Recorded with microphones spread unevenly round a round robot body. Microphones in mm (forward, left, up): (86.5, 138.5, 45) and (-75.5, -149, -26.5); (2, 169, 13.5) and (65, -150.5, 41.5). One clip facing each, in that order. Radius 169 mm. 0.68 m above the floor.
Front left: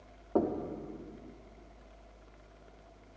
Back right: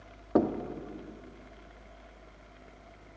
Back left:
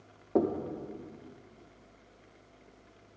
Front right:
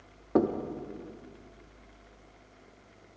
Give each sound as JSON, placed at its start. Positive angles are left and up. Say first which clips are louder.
{"t": 0.3, "sound": "knocking", "louder": "back right 4 dB, front right 2 dB", "azimuth_deg": -140, "distance_m": 0.8}